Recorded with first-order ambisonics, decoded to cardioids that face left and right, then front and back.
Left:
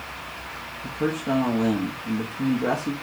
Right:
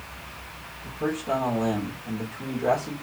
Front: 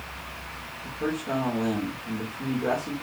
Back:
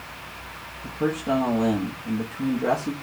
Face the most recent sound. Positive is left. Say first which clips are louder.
# left 1 dB, back 5 dB
turn(degrees=125)